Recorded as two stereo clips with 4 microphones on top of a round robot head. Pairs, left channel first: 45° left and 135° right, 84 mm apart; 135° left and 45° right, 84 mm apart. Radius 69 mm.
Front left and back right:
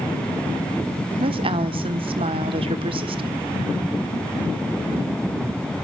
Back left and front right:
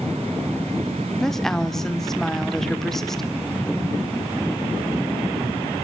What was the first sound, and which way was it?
A woman speaking, 140° right.